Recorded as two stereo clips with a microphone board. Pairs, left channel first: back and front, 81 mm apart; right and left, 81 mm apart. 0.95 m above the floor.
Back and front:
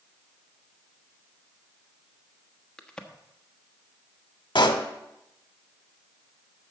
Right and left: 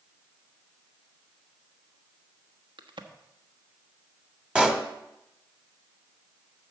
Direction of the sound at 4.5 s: 170° left.